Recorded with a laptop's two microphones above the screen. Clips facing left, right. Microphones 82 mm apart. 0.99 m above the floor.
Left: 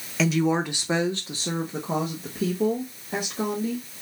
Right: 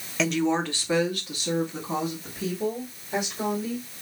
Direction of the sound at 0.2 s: Centre (ahead or behind).